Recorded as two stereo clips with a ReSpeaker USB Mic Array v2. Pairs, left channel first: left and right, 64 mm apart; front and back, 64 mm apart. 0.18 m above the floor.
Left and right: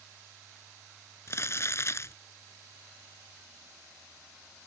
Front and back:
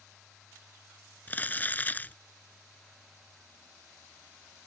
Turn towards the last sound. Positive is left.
turn(degrees=60)